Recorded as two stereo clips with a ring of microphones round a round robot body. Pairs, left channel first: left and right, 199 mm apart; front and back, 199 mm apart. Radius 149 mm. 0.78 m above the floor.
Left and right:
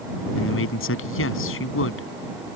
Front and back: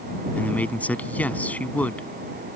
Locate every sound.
0.4 s a man speaking: 85° left